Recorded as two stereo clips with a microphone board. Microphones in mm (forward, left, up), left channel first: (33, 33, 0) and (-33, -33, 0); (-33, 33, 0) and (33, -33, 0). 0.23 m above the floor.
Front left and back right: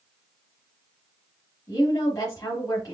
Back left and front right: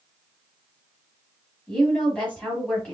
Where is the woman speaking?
65° left, 1.4 m.